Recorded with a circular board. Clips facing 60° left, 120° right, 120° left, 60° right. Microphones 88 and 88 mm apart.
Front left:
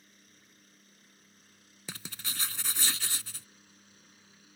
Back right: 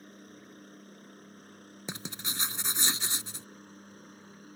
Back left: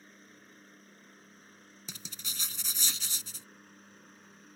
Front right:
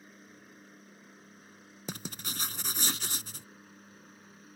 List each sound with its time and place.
0.0 s a helicopter: 140° right; by 4.6 s 145° right
1.9 s writing: 60° right